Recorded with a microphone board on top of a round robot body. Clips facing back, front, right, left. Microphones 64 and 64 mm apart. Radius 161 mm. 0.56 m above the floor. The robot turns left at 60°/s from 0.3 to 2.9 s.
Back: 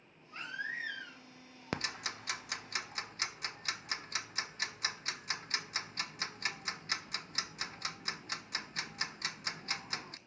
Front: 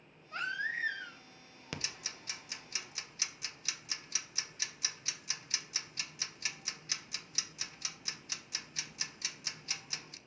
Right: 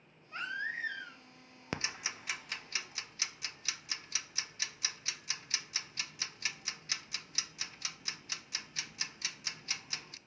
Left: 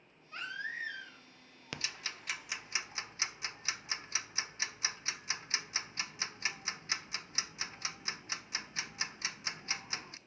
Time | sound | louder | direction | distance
0.3 | a baby crying | front 4 dB, right 3 dB | 20° right | 3 m
1.7 | ticking | back 6 dB, right 4 dB | 140° right | 0.6 m